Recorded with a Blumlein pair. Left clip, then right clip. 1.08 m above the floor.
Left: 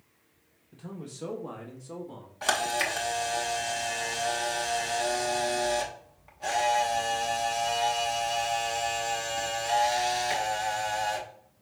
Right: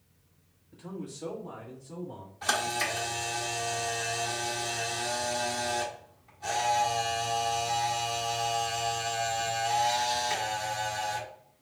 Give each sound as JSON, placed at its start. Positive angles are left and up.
{"t": 0.7, "sound": "a man speaking", "azimuth_deg": 10, "distance_m": 1.2}
{"t": 2.4, "sound": "a camera shutter", "azimuth_deg": 60, "distance_m": 1.2}